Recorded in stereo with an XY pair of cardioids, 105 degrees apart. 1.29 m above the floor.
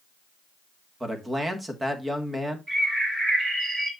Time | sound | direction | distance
1.0 | a man speaking | 15° right | 1.9 m
2.7 | a bird | 25° right | 3 m